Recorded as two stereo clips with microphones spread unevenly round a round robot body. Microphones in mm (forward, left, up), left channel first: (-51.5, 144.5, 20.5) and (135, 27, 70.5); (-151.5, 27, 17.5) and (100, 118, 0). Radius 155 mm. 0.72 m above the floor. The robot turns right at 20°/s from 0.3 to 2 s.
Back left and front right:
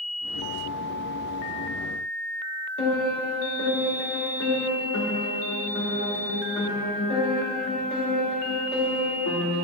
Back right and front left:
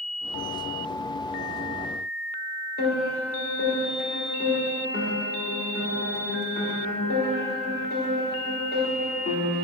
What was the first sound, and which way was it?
A piano, 145° left.